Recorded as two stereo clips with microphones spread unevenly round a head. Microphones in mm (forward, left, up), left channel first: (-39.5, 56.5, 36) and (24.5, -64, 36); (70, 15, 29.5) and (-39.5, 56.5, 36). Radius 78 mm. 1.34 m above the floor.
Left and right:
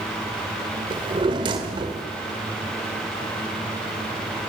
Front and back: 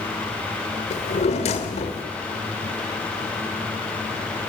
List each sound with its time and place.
0.9 s a drawer: 10° right, 1.4 m